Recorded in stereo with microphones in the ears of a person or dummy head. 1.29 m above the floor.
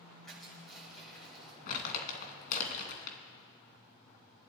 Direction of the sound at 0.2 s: 5° left (ahead or behind).